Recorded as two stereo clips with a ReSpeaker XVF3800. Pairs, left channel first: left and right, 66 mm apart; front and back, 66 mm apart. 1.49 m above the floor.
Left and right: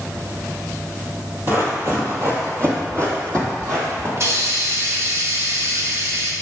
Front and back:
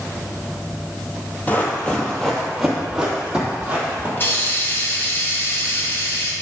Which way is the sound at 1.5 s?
50° right.